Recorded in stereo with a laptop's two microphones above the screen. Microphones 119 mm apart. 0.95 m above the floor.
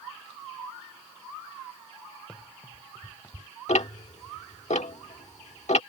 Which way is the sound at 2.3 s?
10° left (ahead or behind).